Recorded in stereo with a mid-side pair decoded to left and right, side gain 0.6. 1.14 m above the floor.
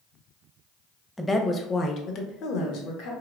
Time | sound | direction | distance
1.2 | a woman speaking | 10° left | 0.7 m